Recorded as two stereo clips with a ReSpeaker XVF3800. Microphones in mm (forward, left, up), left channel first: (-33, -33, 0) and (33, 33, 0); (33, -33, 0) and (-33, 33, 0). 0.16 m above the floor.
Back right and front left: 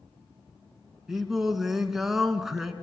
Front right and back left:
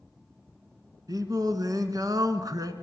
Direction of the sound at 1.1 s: 130° left.